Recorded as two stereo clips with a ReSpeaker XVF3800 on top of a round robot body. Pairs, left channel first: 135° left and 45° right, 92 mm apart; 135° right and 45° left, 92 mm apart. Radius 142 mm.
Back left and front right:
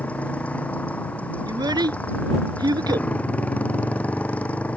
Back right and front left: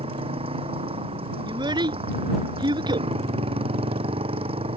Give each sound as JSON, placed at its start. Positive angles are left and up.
{"t": 0.0, "sound": "a motorcycle", "azimuth_deg": 60}
{"t": 1.5, "sound": "a child speaking", "azimuth_deg": 5}